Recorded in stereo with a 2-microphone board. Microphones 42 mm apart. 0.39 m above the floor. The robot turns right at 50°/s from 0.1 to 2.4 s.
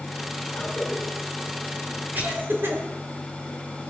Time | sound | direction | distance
0.5 | a cough | 35° left (ahead or behind) | 5 m